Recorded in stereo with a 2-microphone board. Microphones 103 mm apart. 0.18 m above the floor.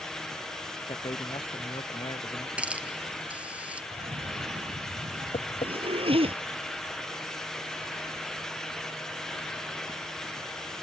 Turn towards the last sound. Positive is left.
turn(degrees=80)